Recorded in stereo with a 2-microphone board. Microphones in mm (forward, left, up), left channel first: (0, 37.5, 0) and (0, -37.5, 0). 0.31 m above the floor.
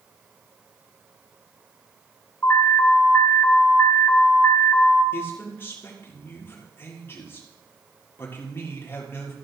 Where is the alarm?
35° left (ahead or behind), 3.5 m.